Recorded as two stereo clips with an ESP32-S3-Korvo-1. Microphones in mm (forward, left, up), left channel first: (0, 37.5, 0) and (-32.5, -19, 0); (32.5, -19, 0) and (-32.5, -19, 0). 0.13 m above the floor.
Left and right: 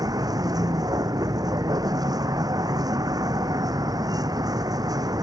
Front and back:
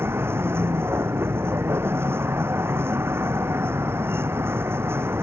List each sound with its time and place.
0.0 s a vehicle: 130° right